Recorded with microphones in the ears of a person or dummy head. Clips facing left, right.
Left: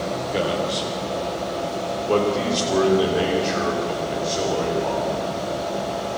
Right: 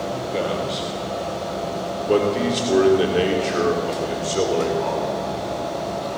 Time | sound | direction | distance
0.3 | a man speaking | 5° left (ahead or behind) | 4 m